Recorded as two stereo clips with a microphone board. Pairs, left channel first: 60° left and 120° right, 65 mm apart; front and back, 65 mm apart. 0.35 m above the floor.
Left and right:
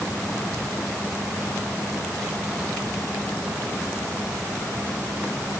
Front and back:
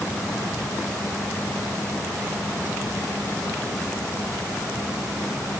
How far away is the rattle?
I don't hear a rattle.